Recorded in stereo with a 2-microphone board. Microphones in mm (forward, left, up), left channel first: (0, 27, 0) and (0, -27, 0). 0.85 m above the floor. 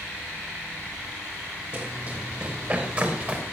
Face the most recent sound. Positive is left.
turn(degrees=-35)  # may be behind; listen again after turning